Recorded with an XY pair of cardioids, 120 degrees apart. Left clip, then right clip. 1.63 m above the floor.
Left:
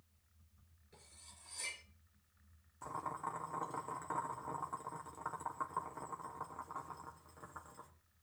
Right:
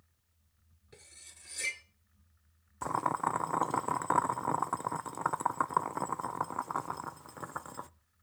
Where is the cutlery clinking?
60° right, 3 m.